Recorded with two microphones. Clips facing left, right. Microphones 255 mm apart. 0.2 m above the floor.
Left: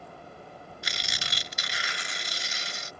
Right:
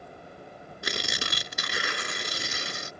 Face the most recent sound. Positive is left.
turn(degrees=-65)  # may be behind; listen again after turning